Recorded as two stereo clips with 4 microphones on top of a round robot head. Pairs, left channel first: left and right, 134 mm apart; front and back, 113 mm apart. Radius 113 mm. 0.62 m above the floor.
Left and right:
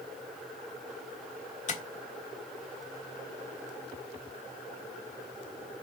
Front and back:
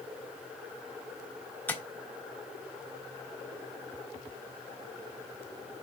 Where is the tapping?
75° left, 1.5 m.